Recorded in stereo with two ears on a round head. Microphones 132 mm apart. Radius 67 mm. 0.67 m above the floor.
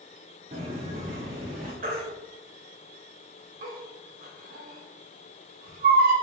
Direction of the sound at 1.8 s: 60° right (ahead or behind).